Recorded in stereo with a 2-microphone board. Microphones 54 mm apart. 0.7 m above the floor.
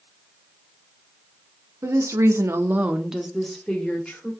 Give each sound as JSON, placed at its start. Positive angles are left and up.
{"t": 1.8, "sound": "a woman speaking", "side_deg": -65, "distance_m": 1.4}